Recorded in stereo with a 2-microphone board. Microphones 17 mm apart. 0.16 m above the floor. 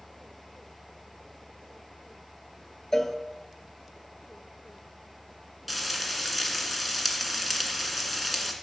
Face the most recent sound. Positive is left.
turn(degrees=10)  # may be behind; listen again after turning